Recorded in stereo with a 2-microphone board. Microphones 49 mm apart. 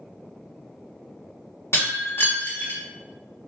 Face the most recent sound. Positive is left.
turn(degrees=70)  # may be behind; listen again after turning